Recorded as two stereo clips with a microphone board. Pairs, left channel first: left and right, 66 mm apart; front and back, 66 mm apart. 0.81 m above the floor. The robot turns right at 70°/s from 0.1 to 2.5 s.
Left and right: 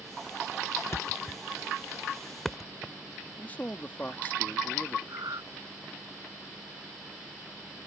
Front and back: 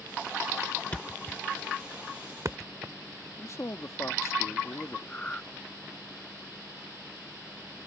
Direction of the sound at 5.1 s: 70° right.